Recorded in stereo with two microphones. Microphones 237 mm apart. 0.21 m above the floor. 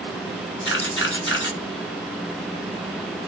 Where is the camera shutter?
55° left (ahead or behind), 0.8 m.